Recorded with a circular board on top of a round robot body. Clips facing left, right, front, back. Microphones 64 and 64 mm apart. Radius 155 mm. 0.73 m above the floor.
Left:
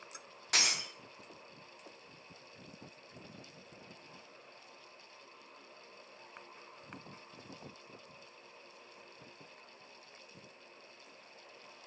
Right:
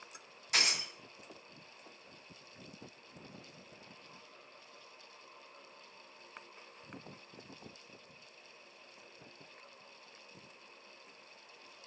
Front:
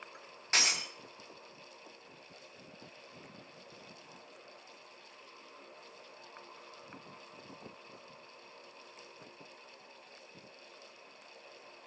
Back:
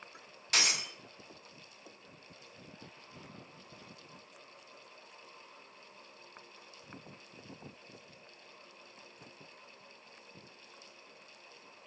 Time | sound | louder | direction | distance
0.5 | breaking glass | even, even | 60° left | 1.4 m